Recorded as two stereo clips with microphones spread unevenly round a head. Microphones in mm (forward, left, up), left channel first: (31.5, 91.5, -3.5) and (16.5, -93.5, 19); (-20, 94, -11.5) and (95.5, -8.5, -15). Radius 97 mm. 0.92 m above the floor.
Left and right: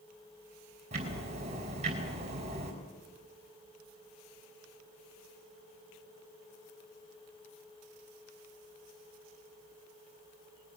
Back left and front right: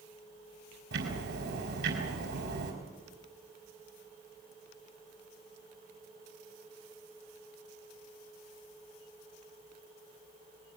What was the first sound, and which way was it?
Ticking, 40° right.